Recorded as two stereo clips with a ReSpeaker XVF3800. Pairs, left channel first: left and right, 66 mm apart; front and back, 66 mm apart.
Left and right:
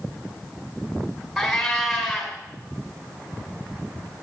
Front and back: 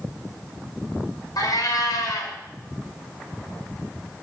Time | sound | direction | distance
1.4 | a cat meowing | straight ahead | 4 m